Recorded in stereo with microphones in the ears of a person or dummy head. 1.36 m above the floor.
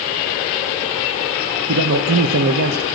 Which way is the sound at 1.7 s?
70° right (ahead or behind).